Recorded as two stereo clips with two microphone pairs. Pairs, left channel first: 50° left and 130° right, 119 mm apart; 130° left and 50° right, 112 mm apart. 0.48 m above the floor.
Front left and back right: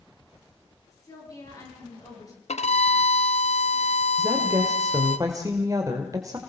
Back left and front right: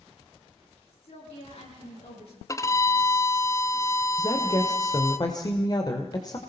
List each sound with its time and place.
0.9 s a woman speaking: 110° left, 10 m
2.5 s a violin: 70° left, 1.0 m
4.2 s a woman speaking: 175° left, 2 m